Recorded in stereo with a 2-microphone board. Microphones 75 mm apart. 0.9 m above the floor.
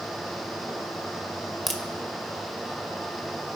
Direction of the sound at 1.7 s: Centre (ahead or behind).